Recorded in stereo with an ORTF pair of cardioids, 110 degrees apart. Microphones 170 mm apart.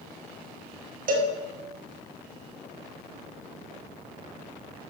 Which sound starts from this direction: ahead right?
A cowbell, at 1.1 s.